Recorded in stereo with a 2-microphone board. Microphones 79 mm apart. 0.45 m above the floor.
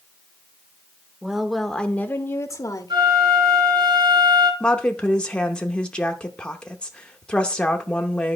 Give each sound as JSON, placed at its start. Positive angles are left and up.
{"t": 1.2, "sound": "a woman speaking", "side_deg": -10, "distance_m": 0.9}
{"t": 2.9, "sound": "a flute", "side_deg": -80, "distance_m": 3.0}
{"t": 4.6, "sound": "a woman speaking", "side_deg": 15, "distance_m": 0.8}